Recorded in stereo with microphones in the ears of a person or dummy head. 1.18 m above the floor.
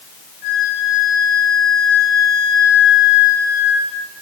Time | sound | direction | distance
0.4 | a flute | 65° left (ahead or behind) | 10 m